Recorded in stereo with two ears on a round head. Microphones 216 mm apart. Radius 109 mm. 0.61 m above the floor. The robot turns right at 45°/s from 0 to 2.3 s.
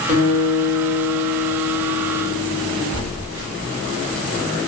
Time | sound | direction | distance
0.1 | a guitar | 90° right | 1.8 m
2.9 | a phone buzzing | 60° right (ahead or behind) | 1.0 m